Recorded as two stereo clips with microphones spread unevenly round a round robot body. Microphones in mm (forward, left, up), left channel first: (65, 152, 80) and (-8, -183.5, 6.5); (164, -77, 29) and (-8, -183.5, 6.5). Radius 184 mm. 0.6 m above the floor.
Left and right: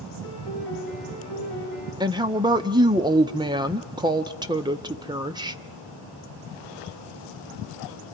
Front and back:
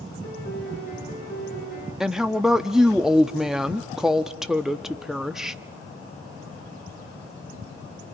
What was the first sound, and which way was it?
A piano, 10° right.